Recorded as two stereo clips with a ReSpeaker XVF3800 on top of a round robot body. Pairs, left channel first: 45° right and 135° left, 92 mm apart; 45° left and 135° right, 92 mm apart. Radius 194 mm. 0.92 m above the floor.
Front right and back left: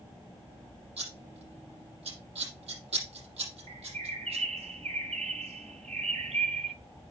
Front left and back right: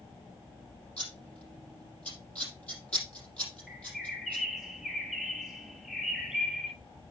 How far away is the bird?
About 0.9 m.